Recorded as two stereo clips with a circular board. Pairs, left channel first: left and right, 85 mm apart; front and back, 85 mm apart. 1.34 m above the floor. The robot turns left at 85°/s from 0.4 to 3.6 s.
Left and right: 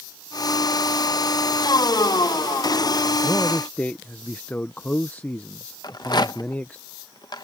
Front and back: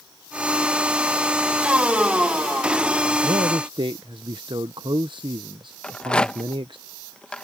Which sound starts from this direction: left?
A rattle, at 5.8 s.